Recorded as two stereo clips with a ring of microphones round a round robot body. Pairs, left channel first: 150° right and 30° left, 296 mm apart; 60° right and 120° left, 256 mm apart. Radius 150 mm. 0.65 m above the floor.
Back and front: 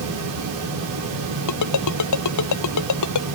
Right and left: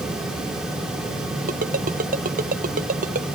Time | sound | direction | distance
1.5 | a ringtone | 175° right | ?